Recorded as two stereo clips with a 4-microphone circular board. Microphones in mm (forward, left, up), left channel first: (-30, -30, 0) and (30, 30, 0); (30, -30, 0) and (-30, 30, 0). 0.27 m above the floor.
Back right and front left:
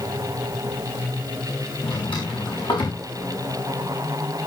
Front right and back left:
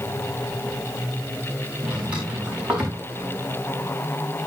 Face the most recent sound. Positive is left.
turn(degrees=-150)